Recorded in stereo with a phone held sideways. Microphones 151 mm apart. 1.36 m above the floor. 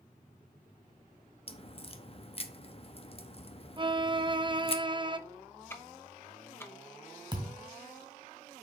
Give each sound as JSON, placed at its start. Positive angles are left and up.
{"t": 1.5, "sound": "a crack", "side_deg": 40, "distance_m": 0.8}
{"t": 3.8, "sound": "a violin", "side_deg": -30, "distance_m": 0.5}
{"t": 5.7, "sound": "ticking", "side_deg": 15, "distance_m": 1.0}
{"t": 7.3, "sound": "a thud", "side_deg": -30, "distance_m": 1.7}